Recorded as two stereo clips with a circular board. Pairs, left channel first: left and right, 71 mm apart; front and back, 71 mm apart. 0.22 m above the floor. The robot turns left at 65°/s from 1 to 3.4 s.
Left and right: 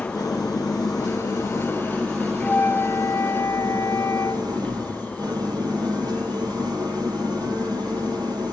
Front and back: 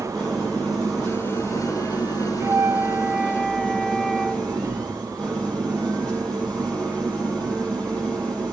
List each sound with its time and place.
0.0 s an engine running: 80° left, 7 m; by 8.5 s 80° right, 7 m
2.4 s a flute: 150° left, 1.7 m; by 4.5 s 85° left, 1.7 m